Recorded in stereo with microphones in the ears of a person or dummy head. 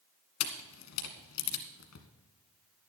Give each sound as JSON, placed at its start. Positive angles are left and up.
{"t": 0.4, "sound": "a camera shutter", "side_deg": 80, "distance_m": 1.7}